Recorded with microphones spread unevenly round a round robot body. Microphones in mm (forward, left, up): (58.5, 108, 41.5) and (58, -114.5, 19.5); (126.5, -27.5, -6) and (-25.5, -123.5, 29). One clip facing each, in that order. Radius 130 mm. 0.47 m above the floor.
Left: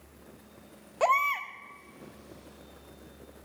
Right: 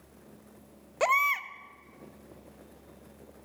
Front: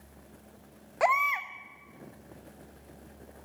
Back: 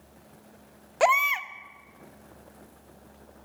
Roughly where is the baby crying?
Right.